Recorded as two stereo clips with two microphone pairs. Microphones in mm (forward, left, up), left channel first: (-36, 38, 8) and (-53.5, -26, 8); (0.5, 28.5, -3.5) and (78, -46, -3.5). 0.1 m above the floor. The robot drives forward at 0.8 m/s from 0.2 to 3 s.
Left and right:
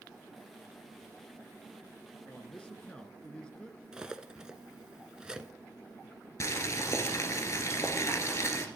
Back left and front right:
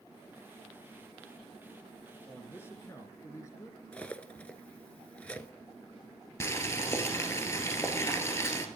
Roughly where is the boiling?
Left.